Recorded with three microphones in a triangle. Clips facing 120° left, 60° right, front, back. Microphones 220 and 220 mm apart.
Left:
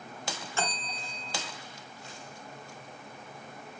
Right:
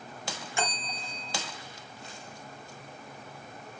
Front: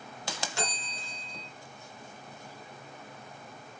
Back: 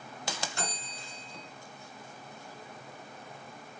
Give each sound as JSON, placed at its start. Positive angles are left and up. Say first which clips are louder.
{"t": 0.6, "sound": "a bell", "louder": "right 2 dB, front 3 dB", "azimuth_deg": 15, "distance_m": 1.4}